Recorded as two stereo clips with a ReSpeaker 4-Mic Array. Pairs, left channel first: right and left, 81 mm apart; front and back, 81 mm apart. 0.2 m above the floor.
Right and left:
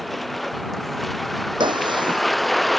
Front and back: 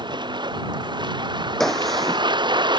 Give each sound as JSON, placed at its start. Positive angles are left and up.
{"t": 0.0, "sound": "a vehicle", "azimuth_deg": 180}
{"t": 1.6, "sound": "a gunshot", "azimuth_deg": 85}